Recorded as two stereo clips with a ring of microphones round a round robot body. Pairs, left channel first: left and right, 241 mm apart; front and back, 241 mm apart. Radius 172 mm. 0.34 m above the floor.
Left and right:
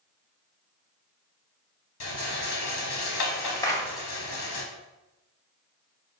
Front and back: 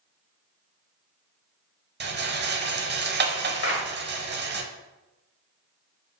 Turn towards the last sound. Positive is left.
turn(degrees=15)